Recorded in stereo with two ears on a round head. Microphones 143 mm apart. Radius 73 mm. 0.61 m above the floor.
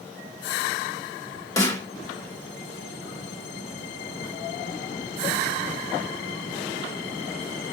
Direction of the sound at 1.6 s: 20° left (ahead or behind).